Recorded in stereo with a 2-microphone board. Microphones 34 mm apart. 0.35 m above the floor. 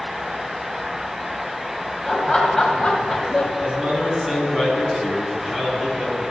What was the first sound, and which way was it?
Laughter, 15° left (ahead or behind).